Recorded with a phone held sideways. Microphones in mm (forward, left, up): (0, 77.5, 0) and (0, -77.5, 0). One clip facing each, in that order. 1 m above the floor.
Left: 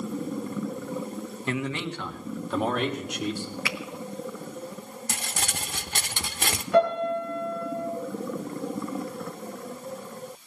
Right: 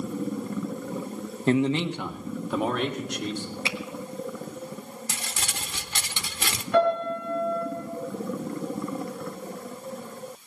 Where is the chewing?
I don't hear chewing.